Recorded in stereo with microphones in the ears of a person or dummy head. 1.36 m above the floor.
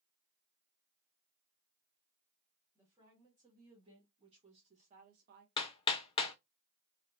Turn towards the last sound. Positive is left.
turn(degrees=25)  # may be behind; listen again after turning